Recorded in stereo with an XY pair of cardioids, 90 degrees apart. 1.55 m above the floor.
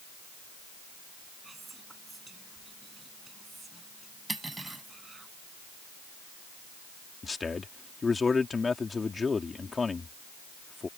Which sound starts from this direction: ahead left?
A man speaking, at 7.2 s.